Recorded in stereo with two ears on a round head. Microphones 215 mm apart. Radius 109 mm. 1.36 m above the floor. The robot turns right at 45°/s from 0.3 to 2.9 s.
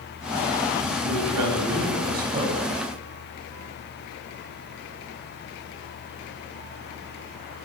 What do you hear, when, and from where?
1.0 s a man speaking: 90° right, 10 m; by 2.7 s 15° right, 10 m